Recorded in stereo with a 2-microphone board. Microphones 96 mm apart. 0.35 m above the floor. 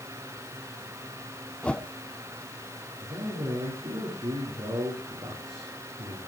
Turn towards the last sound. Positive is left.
turn(degrees=-75)  # may be behind; listen again after turning